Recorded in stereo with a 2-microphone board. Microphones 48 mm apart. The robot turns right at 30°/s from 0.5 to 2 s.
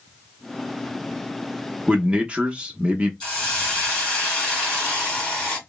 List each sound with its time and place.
1.9 s a man speaking: 25° right (ahead or behind), 0.7 m
3.2 s a hiss: 20° left (ahead or behind), 2 m